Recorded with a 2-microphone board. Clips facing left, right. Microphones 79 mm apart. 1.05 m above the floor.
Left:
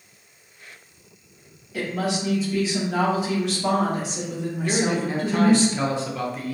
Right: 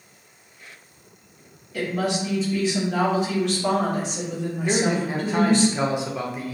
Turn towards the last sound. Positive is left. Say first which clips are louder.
# right 1 dB
turn(degrees=-15)  # may be behind; listen again after turning